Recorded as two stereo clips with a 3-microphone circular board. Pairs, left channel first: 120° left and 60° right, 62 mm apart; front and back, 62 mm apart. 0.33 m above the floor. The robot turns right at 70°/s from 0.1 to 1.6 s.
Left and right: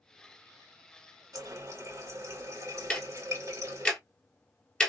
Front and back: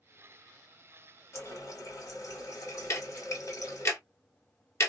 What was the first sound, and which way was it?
A running tap, 45° right.